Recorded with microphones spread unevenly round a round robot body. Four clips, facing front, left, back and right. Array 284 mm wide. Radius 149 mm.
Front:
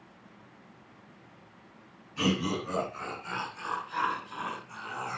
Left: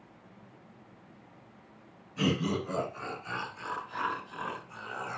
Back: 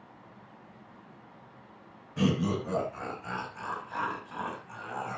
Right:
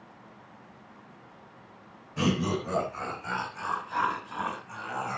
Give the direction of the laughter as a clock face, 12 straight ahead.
5 o'clock.